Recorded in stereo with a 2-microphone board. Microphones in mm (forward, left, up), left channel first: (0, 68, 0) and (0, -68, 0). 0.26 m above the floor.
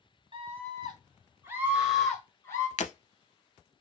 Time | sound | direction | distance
0.3 | a scream | 45° right (ahead or behind) | 2.0 m
2.8 | breaking glass | 60° left (ahead or behind) | 0.7 m